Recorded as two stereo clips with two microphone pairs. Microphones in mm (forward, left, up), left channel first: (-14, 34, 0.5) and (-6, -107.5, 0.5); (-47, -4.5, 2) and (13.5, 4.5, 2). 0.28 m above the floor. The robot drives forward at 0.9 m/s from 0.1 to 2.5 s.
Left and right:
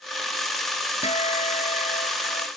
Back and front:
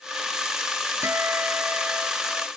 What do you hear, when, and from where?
1.0 s a guitar: 50° left; by 2.5 s 75° left